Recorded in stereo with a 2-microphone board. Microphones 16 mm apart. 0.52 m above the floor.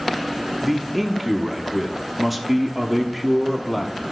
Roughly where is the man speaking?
Centre.